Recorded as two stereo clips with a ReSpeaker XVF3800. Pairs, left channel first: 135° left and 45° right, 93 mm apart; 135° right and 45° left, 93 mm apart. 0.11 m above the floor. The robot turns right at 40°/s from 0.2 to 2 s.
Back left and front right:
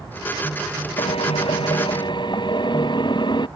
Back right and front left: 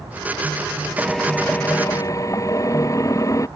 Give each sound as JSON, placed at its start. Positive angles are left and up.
{"t": 1.0, "sound": "a drill", "azimuth_deg": 130}